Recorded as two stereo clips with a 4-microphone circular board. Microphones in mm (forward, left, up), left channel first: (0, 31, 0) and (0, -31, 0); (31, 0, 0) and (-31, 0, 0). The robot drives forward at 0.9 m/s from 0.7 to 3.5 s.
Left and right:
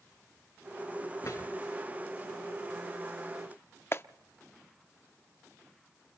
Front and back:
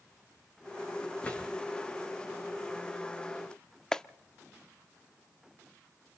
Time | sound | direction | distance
1.2 | a drawer | 70° left | 6.5 m
3.9 | a clap | 75° left | 0.6 m